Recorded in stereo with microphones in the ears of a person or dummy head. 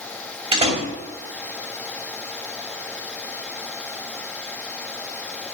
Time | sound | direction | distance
0.5 | a door slam | 30° right (ahead or behind) | 2.5 m